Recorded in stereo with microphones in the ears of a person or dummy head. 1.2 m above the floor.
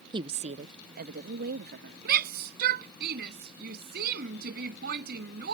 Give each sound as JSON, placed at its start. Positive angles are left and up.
{"t": 0.1, "sound": "a woman speaking", "side_deg": -20}
{"t": 2.0, "sound": "a shout", "side_deg": -50}